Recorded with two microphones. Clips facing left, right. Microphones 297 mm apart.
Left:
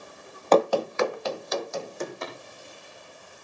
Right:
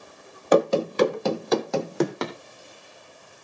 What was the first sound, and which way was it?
Running footsteps, 10° right (ahead or behind).